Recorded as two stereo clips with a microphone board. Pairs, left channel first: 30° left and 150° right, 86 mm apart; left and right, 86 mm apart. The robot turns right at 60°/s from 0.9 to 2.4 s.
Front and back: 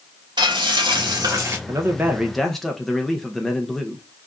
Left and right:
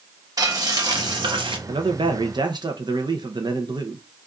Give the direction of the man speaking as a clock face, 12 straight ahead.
3 o'clock.